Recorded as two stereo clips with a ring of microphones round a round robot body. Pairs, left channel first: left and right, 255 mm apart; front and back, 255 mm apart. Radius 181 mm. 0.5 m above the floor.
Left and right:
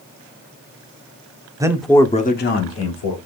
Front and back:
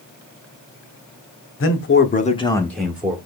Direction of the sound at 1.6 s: 15° right.